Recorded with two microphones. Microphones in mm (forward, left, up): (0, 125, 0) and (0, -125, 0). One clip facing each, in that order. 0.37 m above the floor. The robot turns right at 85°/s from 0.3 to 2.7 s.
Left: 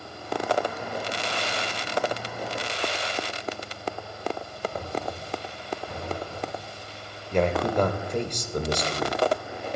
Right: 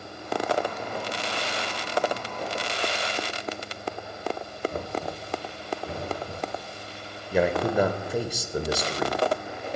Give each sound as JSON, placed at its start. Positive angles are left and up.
{"t": 4.7, "sound": "knocking", "side_deg": -75, "distance_m": 4.5}
{"t": 7.3, "sound": "a man speaking", "side_deg": -5, "distance_m": 0.9}